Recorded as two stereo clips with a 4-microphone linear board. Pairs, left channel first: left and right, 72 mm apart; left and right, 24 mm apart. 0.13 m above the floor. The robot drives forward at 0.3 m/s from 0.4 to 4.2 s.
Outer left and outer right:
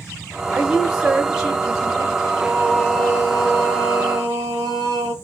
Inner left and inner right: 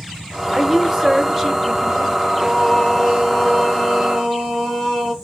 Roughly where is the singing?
Centre.